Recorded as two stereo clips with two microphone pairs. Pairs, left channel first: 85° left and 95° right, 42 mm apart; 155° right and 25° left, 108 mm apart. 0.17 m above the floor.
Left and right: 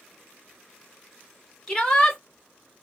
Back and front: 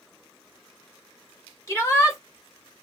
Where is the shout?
155° left, 2 m.